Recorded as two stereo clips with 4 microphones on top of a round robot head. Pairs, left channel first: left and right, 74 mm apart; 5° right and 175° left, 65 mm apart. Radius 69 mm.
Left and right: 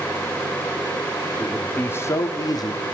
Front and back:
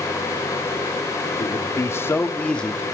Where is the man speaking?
15° left, 1.1 m; by 2.8 s 75° left, 1.1 m.